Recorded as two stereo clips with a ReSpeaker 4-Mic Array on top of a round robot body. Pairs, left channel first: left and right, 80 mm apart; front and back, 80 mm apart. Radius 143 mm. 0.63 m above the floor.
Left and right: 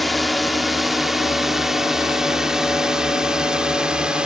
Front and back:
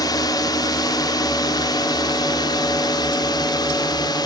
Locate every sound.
0.0 s a drone: straight ahead; by 4.3 s 15° right